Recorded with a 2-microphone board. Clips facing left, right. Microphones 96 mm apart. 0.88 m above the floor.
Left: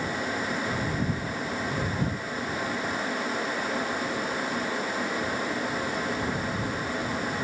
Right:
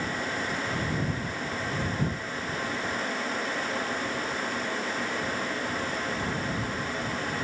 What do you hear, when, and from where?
Only background noise.